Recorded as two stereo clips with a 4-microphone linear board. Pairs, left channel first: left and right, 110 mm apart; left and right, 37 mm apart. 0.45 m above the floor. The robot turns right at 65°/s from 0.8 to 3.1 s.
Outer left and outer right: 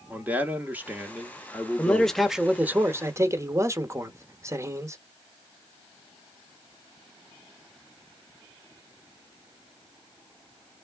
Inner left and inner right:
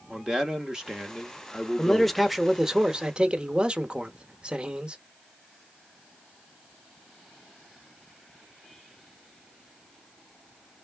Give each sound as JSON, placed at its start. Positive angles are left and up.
{"t": 0.1, "sound": "a man speaking", "side_deg": -15, "distance_m": 0.8}
{"t": 1.8, "sound": "a man speaking", "azimuth_deg": 155, "distance_m": 0.8}